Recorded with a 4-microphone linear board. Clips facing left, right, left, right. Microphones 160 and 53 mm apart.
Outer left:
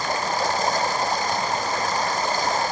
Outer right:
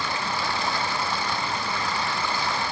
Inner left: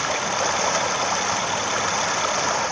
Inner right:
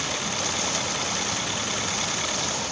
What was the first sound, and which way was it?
Running water, 45° left (ahead or behind).